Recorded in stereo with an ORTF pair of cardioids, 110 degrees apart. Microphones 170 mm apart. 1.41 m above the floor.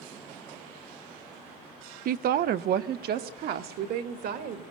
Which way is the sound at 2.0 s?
60° right.